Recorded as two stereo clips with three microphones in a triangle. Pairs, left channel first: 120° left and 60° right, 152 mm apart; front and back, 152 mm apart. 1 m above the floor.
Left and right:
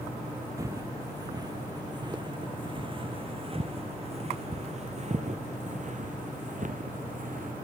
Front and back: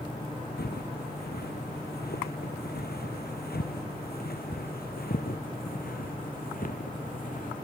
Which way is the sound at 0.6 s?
10° left.